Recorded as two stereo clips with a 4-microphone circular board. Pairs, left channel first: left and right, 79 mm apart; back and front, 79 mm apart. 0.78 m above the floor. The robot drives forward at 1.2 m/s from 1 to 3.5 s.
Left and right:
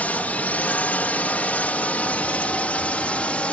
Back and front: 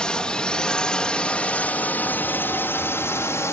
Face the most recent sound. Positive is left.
turn(degrees=155)